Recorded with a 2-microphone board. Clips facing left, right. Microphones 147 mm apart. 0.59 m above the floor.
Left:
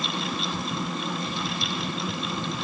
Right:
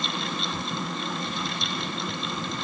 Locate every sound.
Only background noise.